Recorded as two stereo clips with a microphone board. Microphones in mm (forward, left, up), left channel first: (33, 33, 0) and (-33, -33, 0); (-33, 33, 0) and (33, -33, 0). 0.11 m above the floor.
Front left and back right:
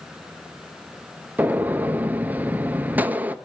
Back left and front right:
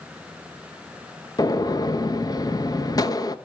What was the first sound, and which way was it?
A gunshot, 160° left.